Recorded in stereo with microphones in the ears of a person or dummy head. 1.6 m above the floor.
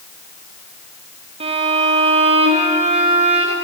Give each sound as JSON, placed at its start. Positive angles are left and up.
{"t": 1.4, "sound": "a violin", "side_deg": -30, "distance_m": 0.7}